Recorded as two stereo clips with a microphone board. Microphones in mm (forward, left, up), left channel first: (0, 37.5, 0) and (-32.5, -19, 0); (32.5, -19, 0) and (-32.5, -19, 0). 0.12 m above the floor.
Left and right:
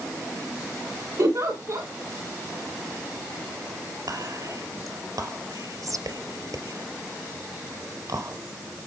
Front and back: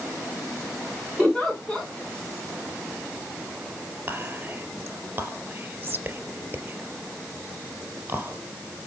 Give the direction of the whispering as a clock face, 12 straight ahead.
4 o'clock.